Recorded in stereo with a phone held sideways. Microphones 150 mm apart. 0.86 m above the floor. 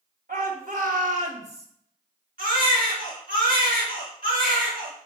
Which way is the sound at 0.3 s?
70° right (ahead or behind).